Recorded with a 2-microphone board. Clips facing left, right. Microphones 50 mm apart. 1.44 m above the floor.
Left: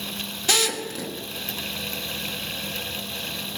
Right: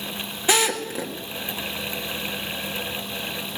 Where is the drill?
20° right (ahead or behind), 1.7 m.